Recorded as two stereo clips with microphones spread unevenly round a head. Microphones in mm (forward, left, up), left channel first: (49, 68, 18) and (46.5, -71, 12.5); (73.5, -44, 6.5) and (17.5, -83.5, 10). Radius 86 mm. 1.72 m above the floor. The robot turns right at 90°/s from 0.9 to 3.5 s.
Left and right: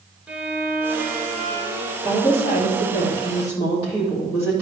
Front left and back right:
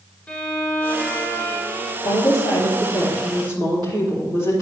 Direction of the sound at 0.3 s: 15° right.